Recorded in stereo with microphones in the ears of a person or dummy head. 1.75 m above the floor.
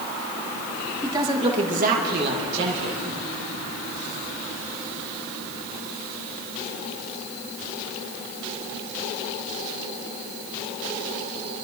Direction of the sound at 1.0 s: 10° right (ahead or behind).